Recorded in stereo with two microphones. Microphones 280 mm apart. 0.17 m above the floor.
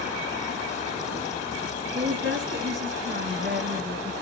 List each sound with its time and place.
1.9 s a woman speaking: 50° right (ahead or behind), 2 m; by 4.1 s 25° right (ahead or behind), 1.4 m